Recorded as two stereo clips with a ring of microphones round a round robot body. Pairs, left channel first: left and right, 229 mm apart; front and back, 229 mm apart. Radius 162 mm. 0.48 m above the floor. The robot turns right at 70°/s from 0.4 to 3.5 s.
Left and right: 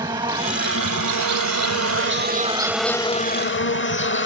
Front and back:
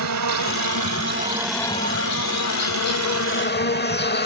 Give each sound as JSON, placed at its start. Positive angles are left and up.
{"t": 0.0, "sound": "an insect", "azimuth_deg": -170}